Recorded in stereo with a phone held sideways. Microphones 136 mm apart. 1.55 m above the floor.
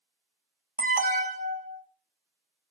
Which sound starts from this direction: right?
An alarm, at 0.8 s.